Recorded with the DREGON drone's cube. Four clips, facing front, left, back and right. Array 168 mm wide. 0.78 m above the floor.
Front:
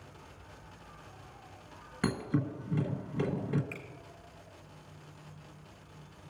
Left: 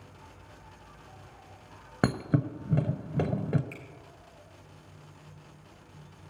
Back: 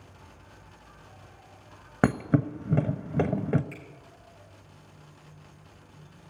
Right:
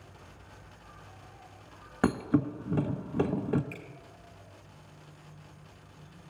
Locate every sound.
0.0 s an insect: 100° left, 4.5 m
2.0 s a thud: 165° left, 1.3 m
3.7 s a finger snap: 35° left, 5 m